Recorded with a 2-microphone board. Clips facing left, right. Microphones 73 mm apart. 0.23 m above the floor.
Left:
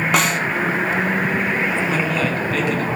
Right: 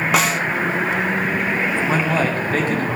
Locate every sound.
0.1 s a snare drum: centre (ahead or behind), 0.5 m
1.9 s a man speaking: 40° right (ahead or behind), 2 m